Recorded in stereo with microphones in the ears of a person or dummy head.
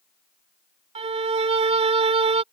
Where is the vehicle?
No vehicle in this recording.